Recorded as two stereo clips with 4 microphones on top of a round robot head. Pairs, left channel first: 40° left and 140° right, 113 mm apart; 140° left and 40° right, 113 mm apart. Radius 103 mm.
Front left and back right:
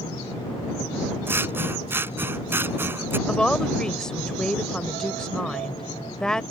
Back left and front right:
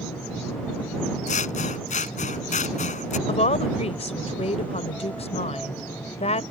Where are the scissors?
145° left.